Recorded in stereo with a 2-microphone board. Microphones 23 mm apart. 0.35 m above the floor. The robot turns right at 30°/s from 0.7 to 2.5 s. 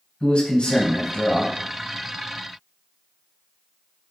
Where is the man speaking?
60° left (ahead or behind), 2 m.